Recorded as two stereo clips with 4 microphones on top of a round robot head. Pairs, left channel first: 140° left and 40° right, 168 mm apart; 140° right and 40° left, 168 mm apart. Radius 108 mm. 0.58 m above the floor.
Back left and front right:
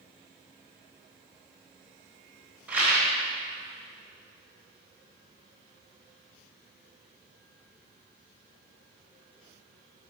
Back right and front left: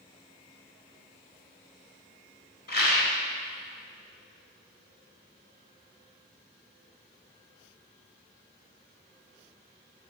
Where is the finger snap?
I don't hear a finger snap.